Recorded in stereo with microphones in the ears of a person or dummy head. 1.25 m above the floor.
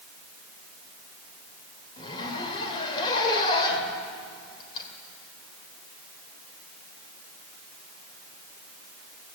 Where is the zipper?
30° left (ahead or behind), 2.5 m.